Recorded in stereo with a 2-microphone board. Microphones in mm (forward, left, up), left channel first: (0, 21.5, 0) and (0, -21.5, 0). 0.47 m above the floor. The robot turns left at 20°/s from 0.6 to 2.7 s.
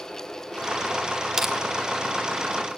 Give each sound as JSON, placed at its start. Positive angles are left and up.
{"t": 1.4, "sound": "crushing", "side_deg": -10, "distance_m": 1.3}